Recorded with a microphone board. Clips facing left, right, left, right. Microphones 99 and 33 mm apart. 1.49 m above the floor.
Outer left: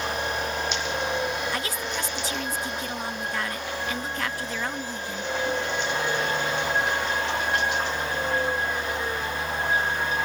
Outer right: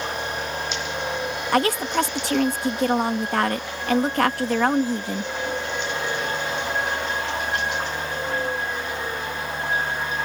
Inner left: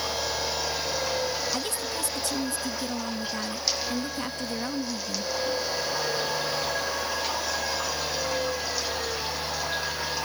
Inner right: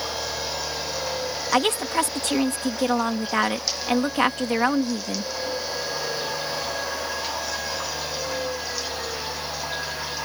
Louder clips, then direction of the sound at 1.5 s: Outer right 9 dB, inner right 9 dB; 60° right (ahead or behind).